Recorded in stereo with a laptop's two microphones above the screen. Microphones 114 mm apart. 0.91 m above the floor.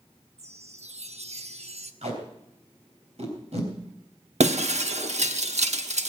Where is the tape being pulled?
65° right (ahead or behind), 3.5 m.